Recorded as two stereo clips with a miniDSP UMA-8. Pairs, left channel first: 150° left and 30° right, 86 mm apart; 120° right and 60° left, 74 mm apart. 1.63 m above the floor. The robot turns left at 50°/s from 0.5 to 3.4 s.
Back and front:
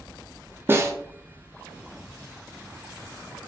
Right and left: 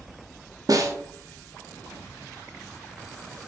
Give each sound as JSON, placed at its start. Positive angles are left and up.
{"t": 0.7, "sound": "a snare drum", "azimuth_deg": 30, "distance_m": 0.7}